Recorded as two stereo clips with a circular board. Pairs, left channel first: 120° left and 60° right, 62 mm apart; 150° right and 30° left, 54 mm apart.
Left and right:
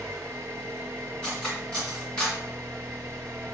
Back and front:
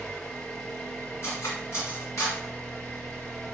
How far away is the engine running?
About 0.8 m.